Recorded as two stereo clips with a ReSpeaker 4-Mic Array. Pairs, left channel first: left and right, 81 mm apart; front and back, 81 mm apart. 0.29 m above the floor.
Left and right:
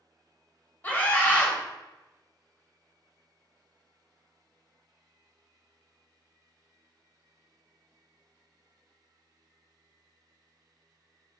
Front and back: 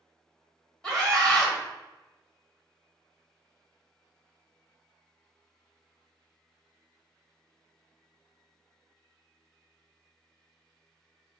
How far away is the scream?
About 1.3 m.